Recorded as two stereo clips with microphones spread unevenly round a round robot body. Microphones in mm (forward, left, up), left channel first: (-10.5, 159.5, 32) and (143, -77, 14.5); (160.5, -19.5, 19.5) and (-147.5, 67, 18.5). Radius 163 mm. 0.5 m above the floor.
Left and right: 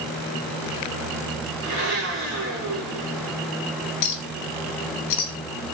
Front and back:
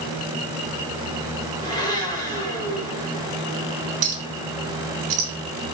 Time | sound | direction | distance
1.6 | a blender | 90° right | 1.2 m
4.0 | a clink | 125° left | 0.9 m